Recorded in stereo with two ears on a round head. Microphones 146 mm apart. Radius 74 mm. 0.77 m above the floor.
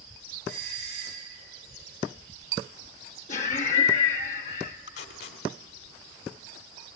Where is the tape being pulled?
70° left (ahead or behind), 1.9 m.